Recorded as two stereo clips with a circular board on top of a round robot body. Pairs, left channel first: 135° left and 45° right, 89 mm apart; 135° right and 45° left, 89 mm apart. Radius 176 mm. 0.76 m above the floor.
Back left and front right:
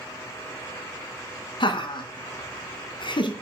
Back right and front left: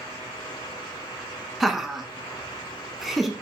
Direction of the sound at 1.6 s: 135° left.